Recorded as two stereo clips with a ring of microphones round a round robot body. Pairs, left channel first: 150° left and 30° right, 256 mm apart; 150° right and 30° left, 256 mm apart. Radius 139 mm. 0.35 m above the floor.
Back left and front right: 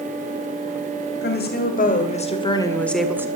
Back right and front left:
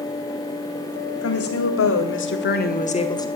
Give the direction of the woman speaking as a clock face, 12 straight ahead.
6 o'clock.